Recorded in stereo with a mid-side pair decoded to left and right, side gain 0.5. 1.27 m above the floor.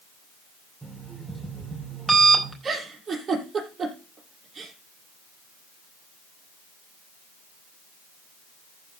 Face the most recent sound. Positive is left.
turn(degrees=-35)